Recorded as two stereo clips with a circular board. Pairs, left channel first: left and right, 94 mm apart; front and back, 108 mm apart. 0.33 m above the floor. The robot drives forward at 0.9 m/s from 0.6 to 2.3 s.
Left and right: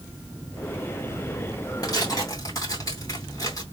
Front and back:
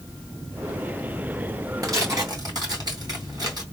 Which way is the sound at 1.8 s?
130° left.